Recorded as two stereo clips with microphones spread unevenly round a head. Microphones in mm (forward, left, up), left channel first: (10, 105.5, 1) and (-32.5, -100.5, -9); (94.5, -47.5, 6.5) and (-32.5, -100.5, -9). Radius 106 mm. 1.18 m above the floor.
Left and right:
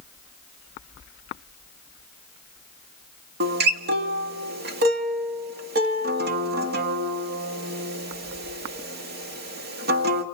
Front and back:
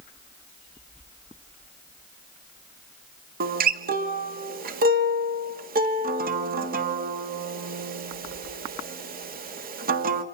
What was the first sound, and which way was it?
A guitar, 145° right.